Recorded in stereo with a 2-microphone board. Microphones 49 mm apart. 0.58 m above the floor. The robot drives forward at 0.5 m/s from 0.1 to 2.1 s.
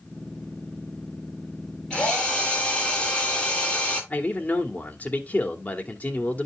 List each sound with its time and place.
1.9 s a drill: 15° left (ahead or behind), 7.5 m
4.1 s a man speaking: 35° left (ahead or behind), 1.6 m